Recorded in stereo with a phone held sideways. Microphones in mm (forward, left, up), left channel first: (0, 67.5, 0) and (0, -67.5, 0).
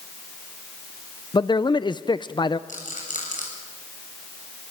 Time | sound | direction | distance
1.3 | a man speaking | 35° left (ahead or behind) | 0.5 m
2.7 | a rattle | 75° left (ahead or behind) | 7 m